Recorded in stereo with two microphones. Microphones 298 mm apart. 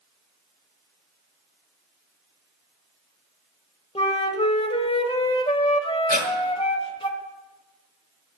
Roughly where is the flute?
Centre.